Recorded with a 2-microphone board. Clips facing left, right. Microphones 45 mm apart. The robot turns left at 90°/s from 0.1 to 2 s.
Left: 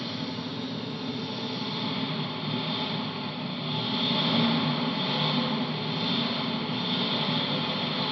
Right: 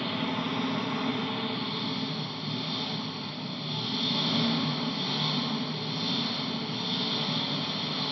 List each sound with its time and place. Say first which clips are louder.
0.0 s an engine running: right 3 dB; 30° right, 0.7 m; by 8.1 s 160° left, 0.7 m